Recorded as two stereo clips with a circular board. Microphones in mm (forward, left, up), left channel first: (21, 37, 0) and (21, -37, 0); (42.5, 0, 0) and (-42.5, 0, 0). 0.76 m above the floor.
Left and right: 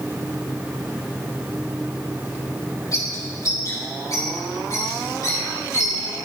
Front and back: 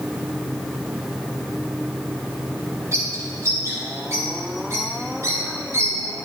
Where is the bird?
125° left, 4 m.